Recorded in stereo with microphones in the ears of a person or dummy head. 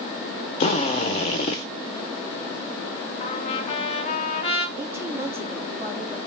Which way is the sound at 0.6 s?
40° left (ahead or behind).